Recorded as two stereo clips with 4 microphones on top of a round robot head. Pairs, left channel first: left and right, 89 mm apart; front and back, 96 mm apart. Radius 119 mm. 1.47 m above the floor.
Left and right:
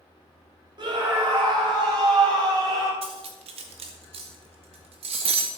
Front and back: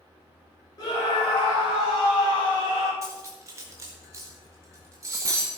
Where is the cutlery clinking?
110° right, 0.8 m.